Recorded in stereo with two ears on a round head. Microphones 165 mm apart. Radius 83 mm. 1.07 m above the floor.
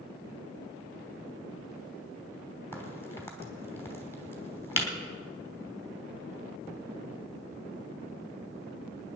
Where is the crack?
15° left (ahead or behind), 3 m.